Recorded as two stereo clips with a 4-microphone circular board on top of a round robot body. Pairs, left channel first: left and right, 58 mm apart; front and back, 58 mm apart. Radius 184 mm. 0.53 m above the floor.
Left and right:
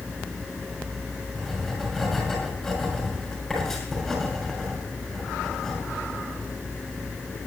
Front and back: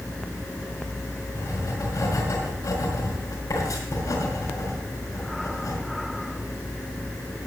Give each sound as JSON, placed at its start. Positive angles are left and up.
{"t": 1.4, "sound": "writing", "azimuth_deg": 5, "distance_m": 6.5}